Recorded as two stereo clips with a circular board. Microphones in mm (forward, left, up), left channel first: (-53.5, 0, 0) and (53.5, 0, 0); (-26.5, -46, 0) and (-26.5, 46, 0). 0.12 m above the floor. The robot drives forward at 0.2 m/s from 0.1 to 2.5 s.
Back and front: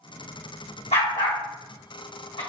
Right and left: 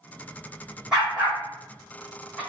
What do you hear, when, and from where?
0.9 s a dog barking: 175° left, 1.6 m